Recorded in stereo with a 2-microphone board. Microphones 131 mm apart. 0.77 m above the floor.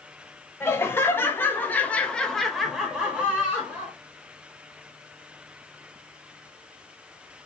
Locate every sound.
0.6 s laughter: 20° left (ahead or behind), 1.3 m; by 3.9 s 15° right (ahead or behind), 1.2 m